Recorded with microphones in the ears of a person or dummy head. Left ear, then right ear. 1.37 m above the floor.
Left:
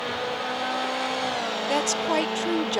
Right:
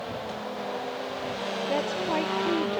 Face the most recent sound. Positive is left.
turn(degrees=80)